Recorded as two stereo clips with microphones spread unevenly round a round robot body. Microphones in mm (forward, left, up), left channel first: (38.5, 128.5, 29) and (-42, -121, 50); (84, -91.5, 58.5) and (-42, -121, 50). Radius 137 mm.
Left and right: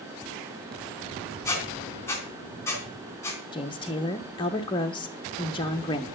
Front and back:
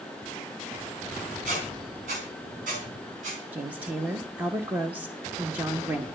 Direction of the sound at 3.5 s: 125° left.